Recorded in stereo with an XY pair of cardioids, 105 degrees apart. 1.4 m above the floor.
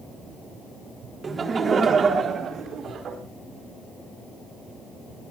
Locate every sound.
1.2 s laughter: 35° right, 3.5 m; by 3.2 s 60° right, 4.5 m